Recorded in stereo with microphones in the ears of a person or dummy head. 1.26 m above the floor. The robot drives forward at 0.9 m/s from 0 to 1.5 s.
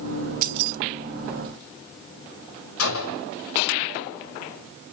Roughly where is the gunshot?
Left.